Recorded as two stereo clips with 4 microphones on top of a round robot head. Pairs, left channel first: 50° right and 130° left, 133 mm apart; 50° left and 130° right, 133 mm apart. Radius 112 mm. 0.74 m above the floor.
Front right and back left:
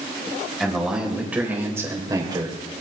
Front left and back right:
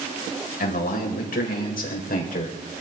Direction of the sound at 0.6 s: 40° left.